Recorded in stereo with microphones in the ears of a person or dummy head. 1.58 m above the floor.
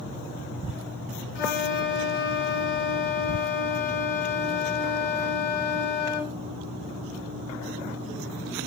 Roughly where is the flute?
Left.